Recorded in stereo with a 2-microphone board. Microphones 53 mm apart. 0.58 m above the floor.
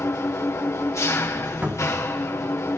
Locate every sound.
0.0 s an engine running: 70° left (ahead or behind), 2.5 m
1.6 s a cupboard door: 35° right (ahead or behind), 4.5 m